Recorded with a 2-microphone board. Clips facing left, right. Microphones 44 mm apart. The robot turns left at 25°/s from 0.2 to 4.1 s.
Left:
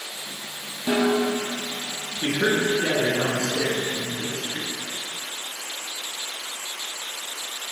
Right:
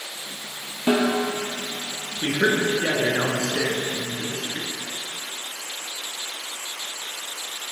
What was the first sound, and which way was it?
A snare drum, 40° right (ahead or behind).